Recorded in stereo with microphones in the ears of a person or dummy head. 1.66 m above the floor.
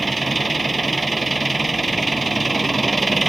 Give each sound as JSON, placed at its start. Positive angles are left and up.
{"t": 0.0, "sound": "an engine running", "side_deg": 0}